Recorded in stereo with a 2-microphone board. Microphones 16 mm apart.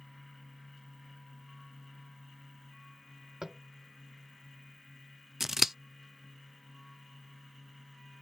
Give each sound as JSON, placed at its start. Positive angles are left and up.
{"t": 3.4, "sound": "tapping", "side_deg": -35}
{"t": 5.4, "sound": "scissors", "side_deg": -20}